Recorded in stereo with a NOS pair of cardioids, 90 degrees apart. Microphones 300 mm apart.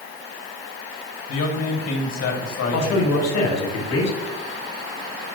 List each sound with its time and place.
1.3 s a man speaking: 55° left, 2 m
2.7 s a man speaking: 60° left, 2 m